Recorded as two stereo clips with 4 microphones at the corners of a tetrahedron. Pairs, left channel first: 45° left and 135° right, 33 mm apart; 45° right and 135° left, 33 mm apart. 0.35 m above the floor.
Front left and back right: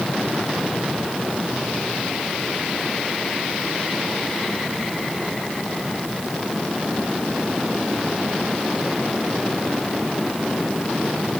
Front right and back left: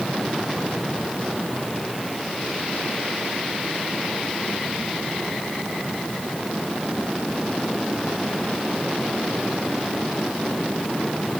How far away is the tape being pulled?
No tape being pulled in this recording.